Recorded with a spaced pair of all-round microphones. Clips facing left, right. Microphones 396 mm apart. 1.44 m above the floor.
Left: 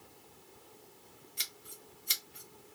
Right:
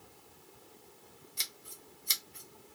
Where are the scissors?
60° right (ahead or behind), 0.7 m.